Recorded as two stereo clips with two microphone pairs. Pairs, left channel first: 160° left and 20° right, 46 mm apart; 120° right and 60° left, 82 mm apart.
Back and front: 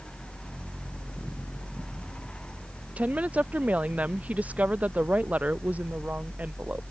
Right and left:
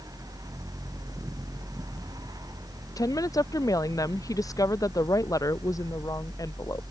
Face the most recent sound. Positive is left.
turn(degrees=-75)